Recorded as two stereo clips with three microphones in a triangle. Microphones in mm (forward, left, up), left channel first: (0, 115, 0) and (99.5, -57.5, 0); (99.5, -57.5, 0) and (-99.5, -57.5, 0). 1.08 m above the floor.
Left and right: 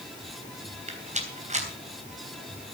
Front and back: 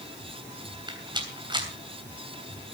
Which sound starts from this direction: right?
A rattle, at 0.9 s.